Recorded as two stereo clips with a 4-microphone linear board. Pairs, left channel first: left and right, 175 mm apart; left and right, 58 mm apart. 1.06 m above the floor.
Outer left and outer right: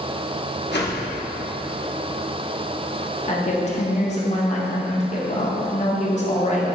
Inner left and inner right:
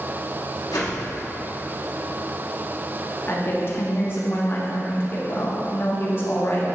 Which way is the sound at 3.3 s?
40° left (ahead or behind).